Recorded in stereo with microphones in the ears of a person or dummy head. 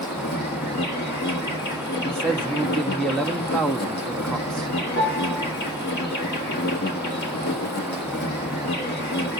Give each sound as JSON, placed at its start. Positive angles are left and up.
{"t": 0.0, "sound": "an insect", "side_deg": 50, "distance_m": 1.6}
{"t": 2.0, "sound": "a man speaking", "side_deg": 5, "distance_m": 1.0}
{"t": 5.0, "sound": "a piano", "side_deg": 55, "distance_m": 6.5}